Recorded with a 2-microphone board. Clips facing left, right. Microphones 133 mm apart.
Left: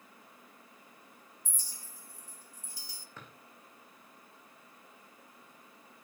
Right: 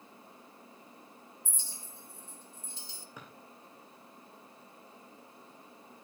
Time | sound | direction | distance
1.4 | a clink | 25° right (ahead or behind) | 1.5 m
3.2 | a drawer | 15° right (ahead or behind) | 5 m